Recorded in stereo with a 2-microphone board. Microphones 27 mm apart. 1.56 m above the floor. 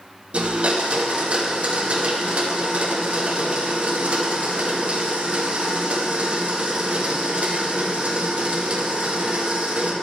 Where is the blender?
45° right (ahead or behind), 1.7 m.